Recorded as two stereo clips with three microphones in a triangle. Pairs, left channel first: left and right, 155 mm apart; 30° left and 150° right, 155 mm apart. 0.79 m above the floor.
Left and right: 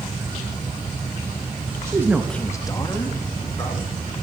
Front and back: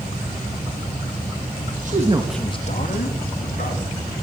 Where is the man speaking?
160° right, 1.0 m; by 3.9 s 25° left, 2.5 m.